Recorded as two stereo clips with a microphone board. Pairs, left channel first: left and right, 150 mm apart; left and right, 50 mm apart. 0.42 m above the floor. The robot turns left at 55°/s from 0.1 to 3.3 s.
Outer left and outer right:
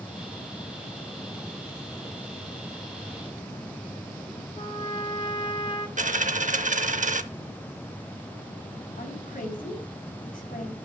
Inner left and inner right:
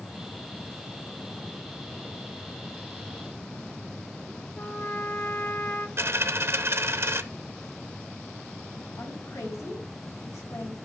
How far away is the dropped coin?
About 0.6 m.